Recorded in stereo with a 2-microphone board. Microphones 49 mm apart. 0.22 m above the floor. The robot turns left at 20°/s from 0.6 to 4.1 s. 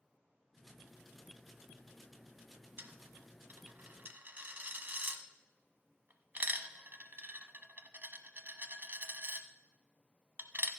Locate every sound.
2.8 s a dropped coin: 50° right (ahead or behind), 0.7 m; by 10.7 s 45° right (ahead or behind), 0.7 m